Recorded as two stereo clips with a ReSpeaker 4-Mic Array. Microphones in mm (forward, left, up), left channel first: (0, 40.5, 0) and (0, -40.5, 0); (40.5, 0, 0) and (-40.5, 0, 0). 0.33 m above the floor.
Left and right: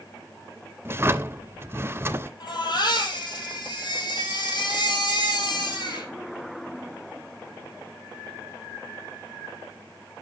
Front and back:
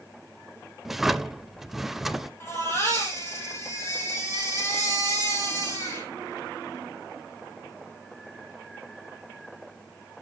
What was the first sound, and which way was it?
A drawer, 95° right.